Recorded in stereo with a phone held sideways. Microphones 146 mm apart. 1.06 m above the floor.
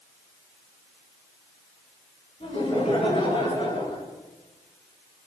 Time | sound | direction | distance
2.4 | laughter | 45° left (ahead or behind) | 9.5 m